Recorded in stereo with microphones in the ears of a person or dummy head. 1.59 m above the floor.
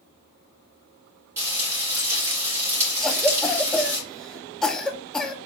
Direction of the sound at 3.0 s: 5° left (ahead or behind).